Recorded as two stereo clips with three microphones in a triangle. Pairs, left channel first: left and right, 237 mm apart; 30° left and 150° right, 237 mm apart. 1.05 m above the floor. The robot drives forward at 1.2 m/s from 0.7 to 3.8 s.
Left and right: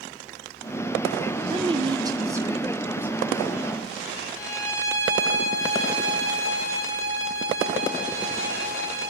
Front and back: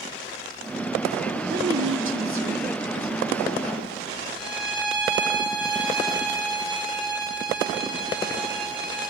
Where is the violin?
170° left, 6 m.